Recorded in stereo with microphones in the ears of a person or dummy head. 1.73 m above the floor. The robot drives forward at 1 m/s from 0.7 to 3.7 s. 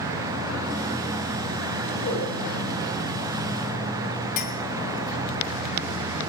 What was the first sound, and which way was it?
A whoosh, 50° left (ahead or behind).